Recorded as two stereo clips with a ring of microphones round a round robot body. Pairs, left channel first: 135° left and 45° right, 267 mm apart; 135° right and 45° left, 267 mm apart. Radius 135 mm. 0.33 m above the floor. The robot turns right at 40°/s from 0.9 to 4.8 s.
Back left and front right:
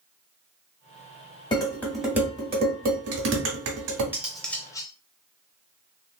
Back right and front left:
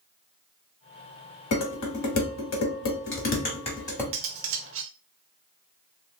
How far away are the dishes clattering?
About 1.5 m.